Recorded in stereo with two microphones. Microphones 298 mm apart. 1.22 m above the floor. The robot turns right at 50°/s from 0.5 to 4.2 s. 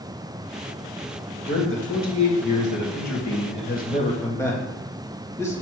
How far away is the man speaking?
About 1.9 m.